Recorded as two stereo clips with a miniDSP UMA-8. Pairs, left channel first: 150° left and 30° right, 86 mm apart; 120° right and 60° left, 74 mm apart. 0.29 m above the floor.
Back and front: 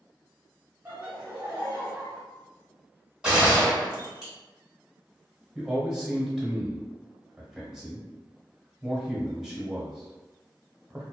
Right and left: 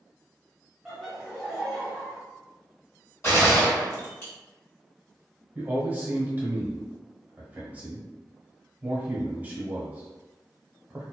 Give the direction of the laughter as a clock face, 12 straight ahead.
1 o'clock.